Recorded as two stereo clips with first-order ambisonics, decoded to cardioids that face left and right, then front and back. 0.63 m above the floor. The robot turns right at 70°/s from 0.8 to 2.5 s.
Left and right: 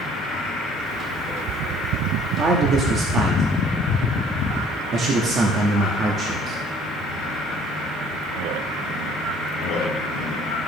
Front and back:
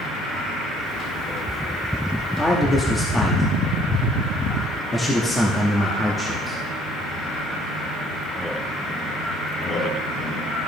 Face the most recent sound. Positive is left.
turn(degrees=-70)